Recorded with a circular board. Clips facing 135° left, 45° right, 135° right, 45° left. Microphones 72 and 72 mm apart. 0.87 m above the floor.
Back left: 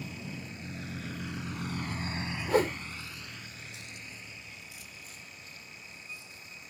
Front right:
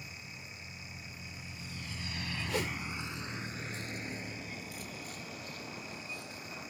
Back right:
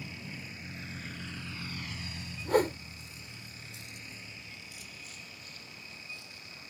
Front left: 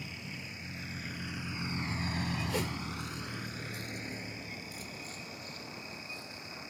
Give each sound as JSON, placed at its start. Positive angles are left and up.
{"t": 0.0, "sound": "a vehicle", "azimuth_deg": 140}
{"t": 2.5, "sound": "a whoosh", "azimuth_deg": 180}